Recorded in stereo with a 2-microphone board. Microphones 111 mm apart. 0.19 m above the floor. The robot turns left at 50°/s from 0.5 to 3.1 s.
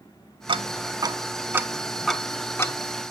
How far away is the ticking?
About 0.5 m.